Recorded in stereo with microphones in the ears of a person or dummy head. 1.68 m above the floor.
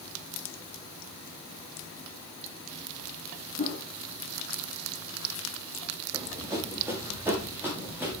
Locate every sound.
3.6 s a whoosh: 35° left (ahead or behind), 3.5 m
6.1 s running footsteps: 10° right (ahead or behind), 6 m; by 8.2 s 5° right (ahead or behind), 8 m